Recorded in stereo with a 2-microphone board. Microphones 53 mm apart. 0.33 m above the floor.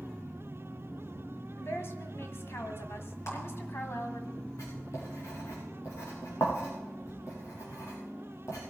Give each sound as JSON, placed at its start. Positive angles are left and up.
{"t": 1.6, "sound": "a woman speaking", "side_deg": 55, "distance_m": 2.0}
{"t": 3.3, "sound": "a clap", "side_deg": 70, "distance_m": 5.0}
{"t": 4.6, "sound": "writing", "side_deg": 85, "distance_m": 6.5}